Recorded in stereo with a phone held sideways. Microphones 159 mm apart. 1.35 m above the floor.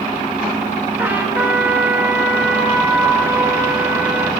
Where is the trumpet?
15° right (ahead or behind), 1.6 m.